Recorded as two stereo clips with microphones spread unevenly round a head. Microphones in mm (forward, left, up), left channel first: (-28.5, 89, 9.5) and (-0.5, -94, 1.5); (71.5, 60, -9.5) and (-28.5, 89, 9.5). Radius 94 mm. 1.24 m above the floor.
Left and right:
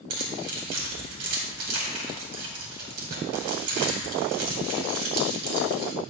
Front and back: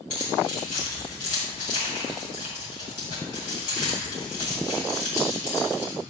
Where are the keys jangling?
80° right, 2 m.